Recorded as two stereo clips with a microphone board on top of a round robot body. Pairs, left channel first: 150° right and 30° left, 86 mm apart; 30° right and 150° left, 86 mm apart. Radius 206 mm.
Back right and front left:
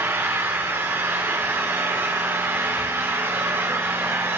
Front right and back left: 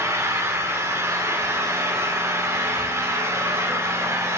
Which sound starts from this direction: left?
An engine running, at 0.0 s.